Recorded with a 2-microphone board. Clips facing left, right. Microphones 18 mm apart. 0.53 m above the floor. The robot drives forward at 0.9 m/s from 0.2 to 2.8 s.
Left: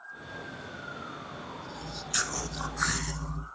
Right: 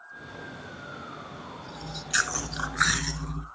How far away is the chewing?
About 2.5 m.